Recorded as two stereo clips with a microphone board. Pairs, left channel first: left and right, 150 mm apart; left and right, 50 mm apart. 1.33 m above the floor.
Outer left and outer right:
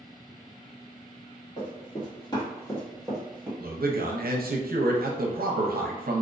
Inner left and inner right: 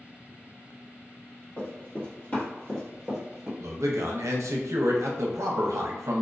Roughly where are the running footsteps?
Left.